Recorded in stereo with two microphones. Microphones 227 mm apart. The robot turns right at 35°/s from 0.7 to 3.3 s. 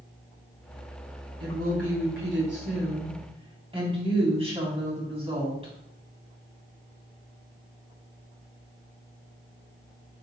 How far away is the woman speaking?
About 4 m.